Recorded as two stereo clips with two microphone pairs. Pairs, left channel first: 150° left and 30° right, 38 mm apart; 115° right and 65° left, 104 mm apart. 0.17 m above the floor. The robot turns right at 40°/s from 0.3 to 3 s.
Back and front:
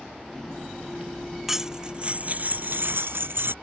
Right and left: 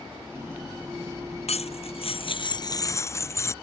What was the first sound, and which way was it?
Cutlery clinking, 115° right.